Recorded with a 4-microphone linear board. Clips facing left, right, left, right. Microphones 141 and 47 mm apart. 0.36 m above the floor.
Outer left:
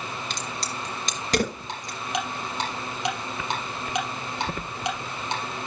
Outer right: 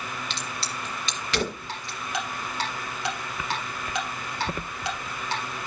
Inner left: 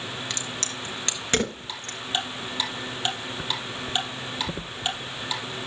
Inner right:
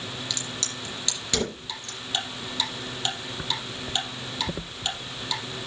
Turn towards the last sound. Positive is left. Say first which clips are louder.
# outer left 2 dB, inner left 2 dB
turn(degrees=20)  # may be behind; listen again after turning